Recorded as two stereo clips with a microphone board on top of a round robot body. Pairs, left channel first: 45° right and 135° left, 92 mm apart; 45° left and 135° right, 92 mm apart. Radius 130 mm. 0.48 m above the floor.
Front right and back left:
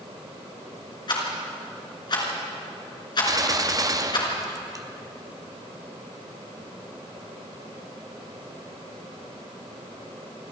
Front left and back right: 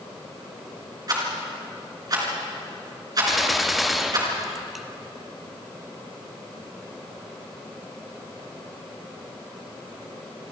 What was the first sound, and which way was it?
A rattle, 85° right.